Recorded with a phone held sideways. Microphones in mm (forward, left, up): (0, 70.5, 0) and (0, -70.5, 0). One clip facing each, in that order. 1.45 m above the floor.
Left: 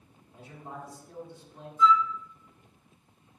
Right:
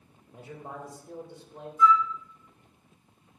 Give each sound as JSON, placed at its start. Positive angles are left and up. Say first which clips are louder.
{"t": 0.3, "sound": "a man speaking", "louder": "right 2 dB", "side_deg": -70, "distance_m": 2.5}
{"t": 1.8, "sound": "a flute", "louder": "right 1 dB", "side_deg": -10, "distance_m": 3.0}